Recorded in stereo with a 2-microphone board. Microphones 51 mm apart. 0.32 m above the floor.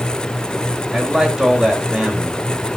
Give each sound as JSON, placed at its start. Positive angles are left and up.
{"t": 0.9, "sound": "a man speaking", "side_deg": -10, "distance_m": 1.7}